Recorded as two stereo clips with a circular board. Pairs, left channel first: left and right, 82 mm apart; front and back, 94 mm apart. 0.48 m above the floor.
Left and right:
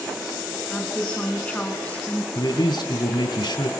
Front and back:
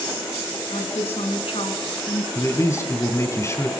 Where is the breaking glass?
No breaking glass in this recording.